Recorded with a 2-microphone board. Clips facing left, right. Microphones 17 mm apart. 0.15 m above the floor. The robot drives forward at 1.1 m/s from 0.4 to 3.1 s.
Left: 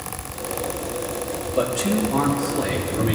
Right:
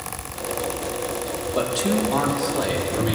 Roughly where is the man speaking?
Right.